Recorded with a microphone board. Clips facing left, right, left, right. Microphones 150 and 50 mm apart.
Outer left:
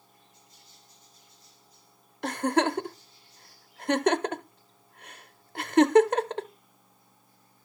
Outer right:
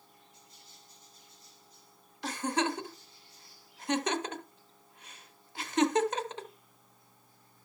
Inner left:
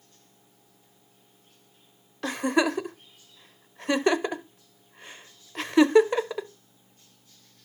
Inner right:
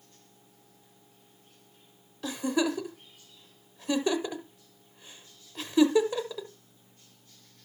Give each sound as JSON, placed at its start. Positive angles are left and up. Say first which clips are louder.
{"t": 2.2, "sound": "a giggle", "louder": "outer left 6 dB, inner left 4 dB", "side_deg": 55, "distance_m": 0.6}